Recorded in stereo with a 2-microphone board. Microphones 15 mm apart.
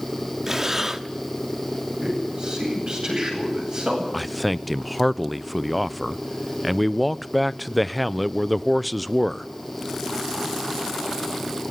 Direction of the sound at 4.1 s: 5° left (ahead or behind).